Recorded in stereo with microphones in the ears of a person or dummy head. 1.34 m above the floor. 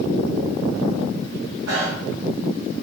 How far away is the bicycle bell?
About 8 m.